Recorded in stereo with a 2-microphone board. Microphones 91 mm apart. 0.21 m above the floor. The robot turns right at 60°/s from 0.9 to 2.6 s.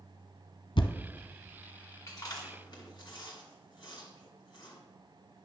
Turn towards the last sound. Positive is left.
turn(degrees=55)  # may be behind; listen again after turning